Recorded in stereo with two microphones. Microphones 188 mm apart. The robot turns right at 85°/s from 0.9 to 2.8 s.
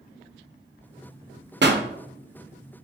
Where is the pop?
60° right (ahead or behind), 0.5 m; by 1.8 s 55° right (ahead or behind), 0.5 m.